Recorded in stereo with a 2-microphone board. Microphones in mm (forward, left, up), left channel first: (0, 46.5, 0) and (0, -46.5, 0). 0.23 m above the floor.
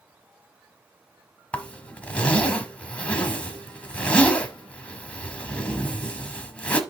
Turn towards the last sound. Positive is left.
turn(degrees=15)  # may be behind; listen again after turning